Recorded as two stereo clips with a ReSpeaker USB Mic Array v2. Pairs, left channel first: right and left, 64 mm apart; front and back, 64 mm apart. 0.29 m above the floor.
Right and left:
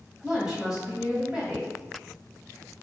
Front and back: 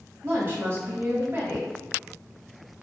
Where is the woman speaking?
170° left, 1.4 m.